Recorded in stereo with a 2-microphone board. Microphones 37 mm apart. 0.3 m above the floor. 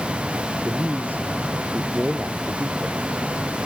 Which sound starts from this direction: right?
A man speaking, at 0.7 s.